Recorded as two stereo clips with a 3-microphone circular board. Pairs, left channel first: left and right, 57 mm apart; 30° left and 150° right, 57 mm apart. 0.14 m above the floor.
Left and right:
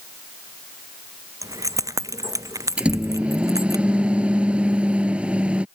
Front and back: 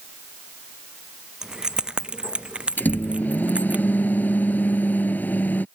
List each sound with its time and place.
1.4 s keys jangling: 70° right; by 3.8 s 85° right
2.8 s a microwave: 25° right